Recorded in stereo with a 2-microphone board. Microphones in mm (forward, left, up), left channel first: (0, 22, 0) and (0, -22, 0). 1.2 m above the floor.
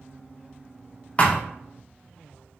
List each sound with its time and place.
1.2 s a thud: 30° left (ahead or behind), 0.8 m